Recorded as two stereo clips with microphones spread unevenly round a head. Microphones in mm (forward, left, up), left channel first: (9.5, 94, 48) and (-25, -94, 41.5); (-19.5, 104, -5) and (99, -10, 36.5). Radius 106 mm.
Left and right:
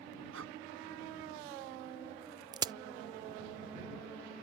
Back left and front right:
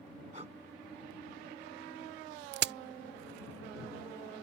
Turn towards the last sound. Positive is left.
turn(degrees=-30)